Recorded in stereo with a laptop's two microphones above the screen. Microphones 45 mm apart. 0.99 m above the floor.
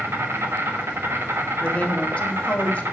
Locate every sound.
0.0 s an insect: 65° right (ahead or behind), 1.1 m
1.6 s a woman speaking: 30° left (ahead or behind), 1.3 m